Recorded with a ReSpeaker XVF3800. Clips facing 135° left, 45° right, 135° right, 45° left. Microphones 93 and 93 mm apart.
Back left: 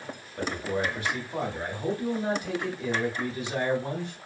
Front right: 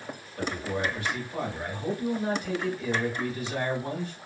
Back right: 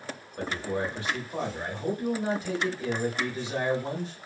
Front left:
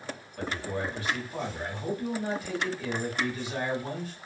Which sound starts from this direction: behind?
A man speaking, at 0.4 s.